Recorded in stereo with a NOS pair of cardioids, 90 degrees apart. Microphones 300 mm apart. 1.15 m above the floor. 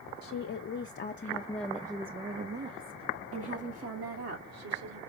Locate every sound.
0.2 s a woman speaking: 60° left, 1.0 m; by 5.0 s 65° right, 2 m